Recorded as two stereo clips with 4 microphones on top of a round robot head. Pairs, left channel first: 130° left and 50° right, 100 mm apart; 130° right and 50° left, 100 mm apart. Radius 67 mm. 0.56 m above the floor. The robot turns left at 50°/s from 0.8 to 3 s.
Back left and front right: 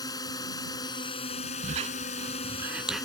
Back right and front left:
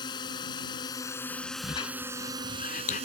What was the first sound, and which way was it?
A drone, 175° right.